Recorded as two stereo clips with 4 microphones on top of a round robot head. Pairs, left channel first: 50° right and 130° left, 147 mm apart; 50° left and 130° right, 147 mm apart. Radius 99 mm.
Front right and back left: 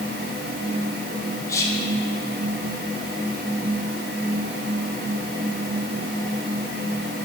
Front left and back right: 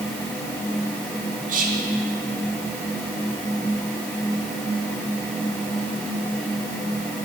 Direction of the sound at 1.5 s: 115° right.